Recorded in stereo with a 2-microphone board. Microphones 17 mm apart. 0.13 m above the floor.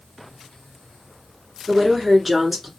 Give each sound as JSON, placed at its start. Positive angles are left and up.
{"t": 1.7, "sound": "a woman speaking", "side_deg": -10, "distance_m": 1.4}